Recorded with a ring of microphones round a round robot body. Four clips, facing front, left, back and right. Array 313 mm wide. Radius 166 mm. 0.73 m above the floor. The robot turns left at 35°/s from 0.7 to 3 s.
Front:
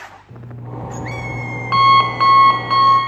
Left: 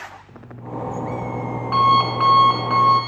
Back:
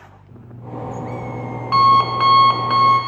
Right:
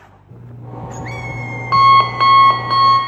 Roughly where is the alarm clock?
Ahead right.